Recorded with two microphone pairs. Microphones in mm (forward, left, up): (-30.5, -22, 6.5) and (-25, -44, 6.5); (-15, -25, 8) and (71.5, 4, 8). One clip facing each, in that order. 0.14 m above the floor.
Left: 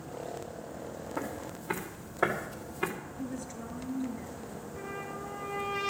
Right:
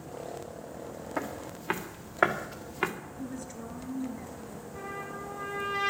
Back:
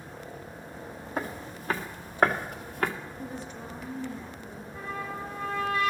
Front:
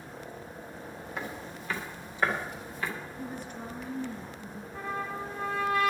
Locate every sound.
1.2 s footsteps: 110° right, 2.5 m; by 2.9 s 125° right, 1.9 m
3.2 s a woman speaking: 5° left, 2.5 m
4.7 s a trumpet: 40° right, 7.5 m